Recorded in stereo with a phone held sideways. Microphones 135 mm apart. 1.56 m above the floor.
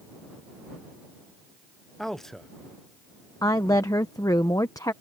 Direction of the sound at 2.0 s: 5° left (ahead or behind).